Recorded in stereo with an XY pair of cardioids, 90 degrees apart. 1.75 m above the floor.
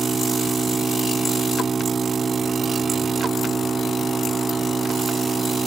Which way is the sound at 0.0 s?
35° right.